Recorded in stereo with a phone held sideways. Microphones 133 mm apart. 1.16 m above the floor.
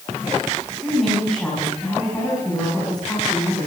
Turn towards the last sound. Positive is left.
turn(degrees=15)  # may be behind; listen again after turning